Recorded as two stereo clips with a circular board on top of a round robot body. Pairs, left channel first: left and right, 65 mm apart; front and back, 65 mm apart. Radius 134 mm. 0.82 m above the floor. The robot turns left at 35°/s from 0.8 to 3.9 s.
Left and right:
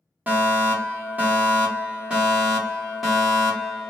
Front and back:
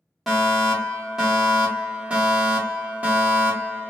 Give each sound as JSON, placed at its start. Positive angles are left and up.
{"t": 0.3, "sound": "a fire alarm", "azimuth_deg": -95, "distance_m": 1.3}